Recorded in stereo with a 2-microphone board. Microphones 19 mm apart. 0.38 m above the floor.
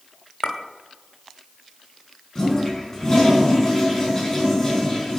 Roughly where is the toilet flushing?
Left.